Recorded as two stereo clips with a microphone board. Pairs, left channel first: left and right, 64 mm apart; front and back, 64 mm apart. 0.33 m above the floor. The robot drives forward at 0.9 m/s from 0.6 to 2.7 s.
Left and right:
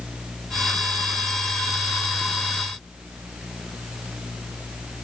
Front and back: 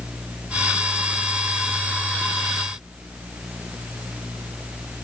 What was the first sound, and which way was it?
Only background noise.